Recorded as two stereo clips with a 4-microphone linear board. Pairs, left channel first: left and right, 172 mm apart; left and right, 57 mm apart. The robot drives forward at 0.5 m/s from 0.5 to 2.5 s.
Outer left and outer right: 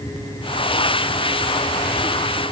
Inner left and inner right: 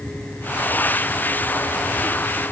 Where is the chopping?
I don't hear chopping.